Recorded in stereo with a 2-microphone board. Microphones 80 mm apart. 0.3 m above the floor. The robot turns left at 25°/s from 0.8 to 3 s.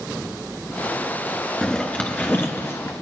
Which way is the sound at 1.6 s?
170° left.